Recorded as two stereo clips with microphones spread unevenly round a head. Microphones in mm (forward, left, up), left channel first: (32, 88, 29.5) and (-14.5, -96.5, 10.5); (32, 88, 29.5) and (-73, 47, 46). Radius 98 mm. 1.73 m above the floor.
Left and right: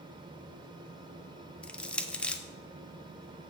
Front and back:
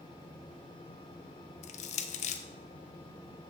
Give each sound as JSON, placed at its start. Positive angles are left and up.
{"t": 1.6, "sound": "crushing", "azimuth_deg": -10, "distance_m": 0.6}